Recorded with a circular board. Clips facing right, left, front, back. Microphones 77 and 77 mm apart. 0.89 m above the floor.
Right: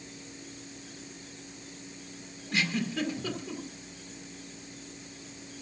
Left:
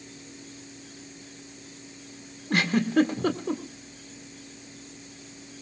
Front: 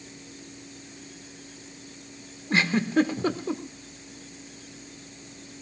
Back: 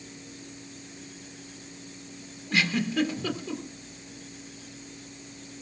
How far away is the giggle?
About 1.7 m.